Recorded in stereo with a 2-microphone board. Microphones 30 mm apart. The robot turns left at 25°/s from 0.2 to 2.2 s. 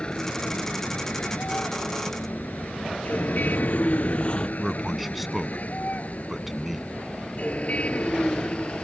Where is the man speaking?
5° right (ahead or behind).